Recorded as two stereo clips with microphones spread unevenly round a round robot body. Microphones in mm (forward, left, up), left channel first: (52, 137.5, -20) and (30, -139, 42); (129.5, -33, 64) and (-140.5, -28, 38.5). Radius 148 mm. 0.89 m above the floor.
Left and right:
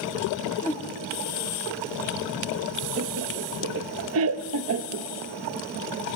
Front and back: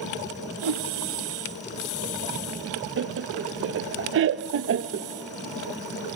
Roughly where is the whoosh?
Behind.